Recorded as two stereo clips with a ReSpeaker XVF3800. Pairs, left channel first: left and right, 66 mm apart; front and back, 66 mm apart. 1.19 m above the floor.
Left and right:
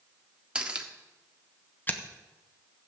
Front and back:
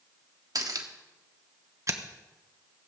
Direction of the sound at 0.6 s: 165° right.